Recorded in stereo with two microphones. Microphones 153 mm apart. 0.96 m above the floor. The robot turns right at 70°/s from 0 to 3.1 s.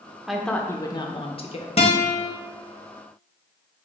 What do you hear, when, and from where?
0.3 s a woman speaking: 5° right, 0.6 m; by 1.7 s 95° left, 0.6 m
1.8 s a guitar: 135° left, 0.9 m; by 2.3 s 170° left, 0.9 m